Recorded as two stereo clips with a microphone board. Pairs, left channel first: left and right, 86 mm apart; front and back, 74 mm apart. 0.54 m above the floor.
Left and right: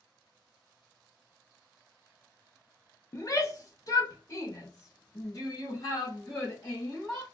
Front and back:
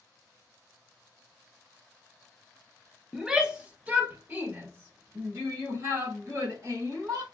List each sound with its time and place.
3.1 s a shout: 100° left, 0.8 m; by 7.2 s 135° left, 2.5 m